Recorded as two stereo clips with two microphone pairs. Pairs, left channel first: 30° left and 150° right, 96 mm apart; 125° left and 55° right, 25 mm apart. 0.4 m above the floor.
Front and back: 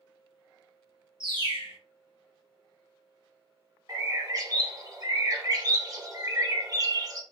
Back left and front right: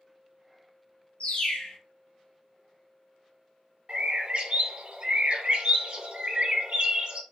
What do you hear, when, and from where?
1.2 s a bird: 170° left, 0.9 m
3.9 s a bird: 100° right, 0.7 m